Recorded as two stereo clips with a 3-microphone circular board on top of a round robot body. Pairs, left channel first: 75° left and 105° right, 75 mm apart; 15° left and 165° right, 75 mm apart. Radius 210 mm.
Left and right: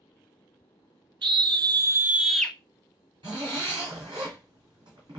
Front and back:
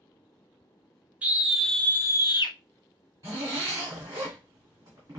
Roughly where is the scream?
Right.